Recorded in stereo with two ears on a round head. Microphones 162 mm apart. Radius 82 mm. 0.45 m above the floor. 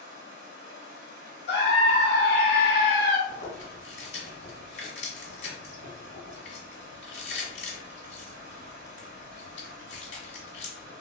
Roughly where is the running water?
Right.